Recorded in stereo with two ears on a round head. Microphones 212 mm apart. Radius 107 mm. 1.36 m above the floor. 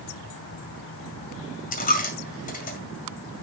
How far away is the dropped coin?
About 2.0 m.